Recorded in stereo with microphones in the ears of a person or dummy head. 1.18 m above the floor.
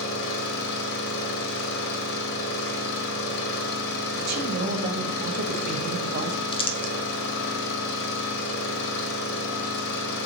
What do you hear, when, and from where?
0.0 s an engine running: 60° left (ahead or behind), 1.3 m
4.2 s a woman speaking: 55° right (ahead or behind), 1.3 m
6.5 s crumpling: 25° left (ahead or behind), 0.6 m